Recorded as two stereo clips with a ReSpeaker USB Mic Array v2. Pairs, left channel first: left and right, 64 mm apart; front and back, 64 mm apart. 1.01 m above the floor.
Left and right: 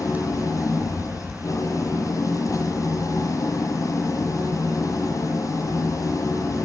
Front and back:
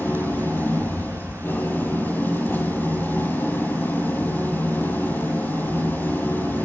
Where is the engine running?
60° left, 10 m.